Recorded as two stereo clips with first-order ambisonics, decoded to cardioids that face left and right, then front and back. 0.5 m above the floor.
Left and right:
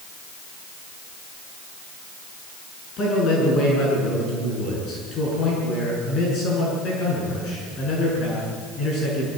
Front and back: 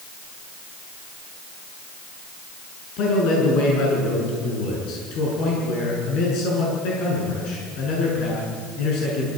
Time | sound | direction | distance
3.0 | a man speaking | 35° left | 7 m